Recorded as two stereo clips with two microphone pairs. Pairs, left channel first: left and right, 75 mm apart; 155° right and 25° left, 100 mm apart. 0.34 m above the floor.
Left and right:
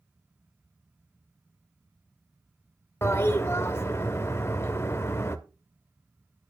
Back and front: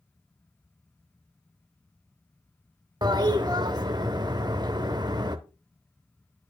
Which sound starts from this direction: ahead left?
A toilet flushing, at 3.0 s.